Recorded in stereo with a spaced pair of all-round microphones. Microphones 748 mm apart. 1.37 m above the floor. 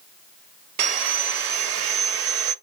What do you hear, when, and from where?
0.8 s sawing: 60° right (ahead or behind), 0.5 m